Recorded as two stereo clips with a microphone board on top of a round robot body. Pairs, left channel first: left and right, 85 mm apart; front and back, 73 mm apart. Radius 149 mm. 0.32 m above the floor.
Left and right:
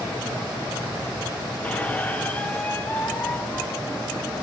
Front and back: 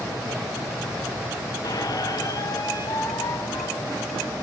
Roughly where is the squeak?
Ahead.